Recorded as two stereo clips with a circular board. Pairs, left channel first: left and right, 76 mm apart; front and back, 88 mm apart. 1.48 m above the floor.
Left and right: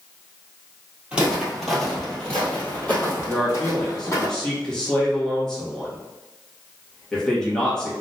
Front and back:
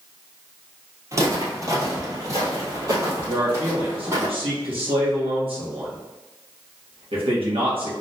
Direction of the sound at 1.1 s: 160° right.